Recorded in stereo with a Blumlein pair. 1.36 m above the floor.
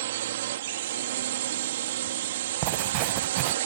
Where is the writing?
40° right.